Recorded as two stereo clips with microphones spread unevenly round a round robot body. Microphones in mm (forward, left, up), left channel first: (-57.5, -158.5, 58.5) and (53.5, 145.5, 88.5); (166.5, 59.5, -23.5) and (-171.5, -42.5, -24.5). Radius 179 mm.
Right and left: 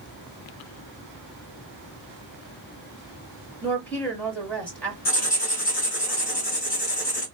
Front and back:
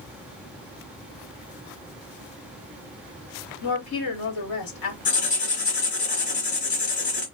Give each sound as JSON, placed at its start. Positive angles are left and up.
{"t": 3.6, "sound": "a woman speaking", "azimuth_deg": -30, "distance_m": 1.8}
{"t": 5.0, "sound": "writing", "azimuth_deg": -45, "distance_m": 1.9}